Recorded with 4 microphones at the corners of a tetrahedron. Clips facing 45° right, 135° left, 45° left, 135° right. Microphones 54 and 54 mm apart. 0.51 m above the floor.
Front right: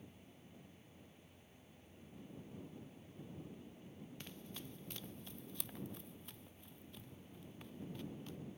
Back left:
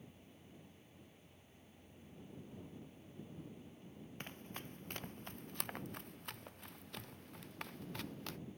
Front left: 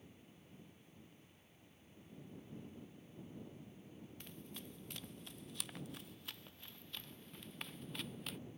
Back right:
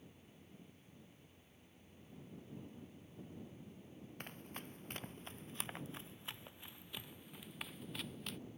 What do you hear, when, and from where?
4.2 s running footsteps: 175° right; by 8.4 s 135° left